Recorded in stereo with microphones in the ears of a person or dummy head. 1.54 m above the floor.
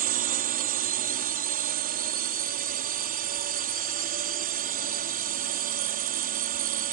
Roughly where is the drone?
Right.